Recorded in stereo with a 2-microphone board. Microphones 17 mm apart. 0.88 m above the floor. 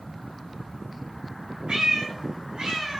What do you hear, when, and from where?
1.7 s a cat meowing: 80° right, 1.8 m; by 3.0 s 85° right, 2.5 m